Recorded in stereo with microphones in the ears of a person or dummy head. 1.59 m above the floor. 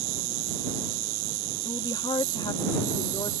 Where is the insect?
70° right (ahead or behind).